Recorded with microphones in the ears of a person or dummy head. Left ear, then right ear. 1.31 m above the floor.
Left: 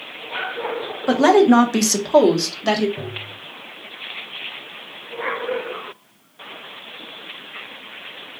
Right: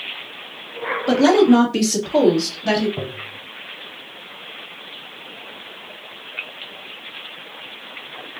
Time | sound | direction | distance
1.1 | a woman speaking | 25° left (ahead or behind) | 0.8 m
3.0 | tapping | 55° right (ahead or behind) | 0.7 m